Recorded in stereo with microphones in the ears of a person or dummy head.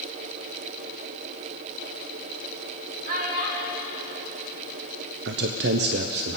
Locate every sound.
3.0 s a child speaking: 50° right (ahead or behind), 4 m
5.2 s a man speaking: 50° right (ahead or behind), 0.7 m